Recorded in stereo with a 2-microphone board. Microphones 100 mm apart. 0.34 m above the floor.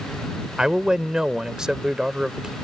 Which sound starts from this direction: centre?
A man speaking, at 0.6 s.